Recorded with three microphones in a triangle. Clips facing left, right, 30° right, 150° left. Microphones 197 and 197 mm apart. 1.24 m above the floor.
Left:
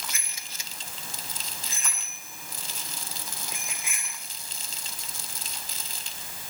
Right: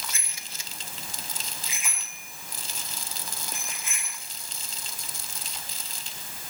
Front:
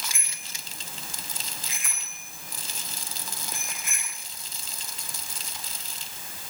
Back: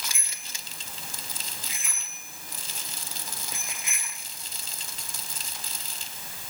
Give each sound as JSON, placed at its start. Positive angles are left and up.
{"t": 0.1, "sound": "a bicycle bell", "azimuth_deg": -30, "distance_m": 6.5}